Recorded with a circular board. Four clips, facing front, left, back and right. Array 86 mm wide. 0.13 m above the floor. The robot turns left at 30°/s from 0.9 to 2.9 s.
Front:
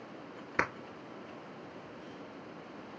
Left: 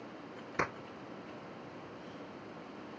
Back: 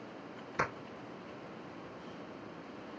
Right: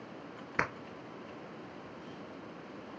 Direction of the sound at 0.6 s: 40° right.